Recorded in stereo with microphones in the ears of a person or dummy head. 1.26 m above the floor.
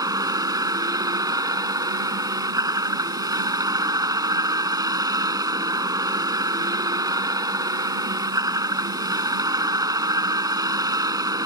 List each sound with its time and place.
0.0 s a vehicle: 20° right (ahead or behind)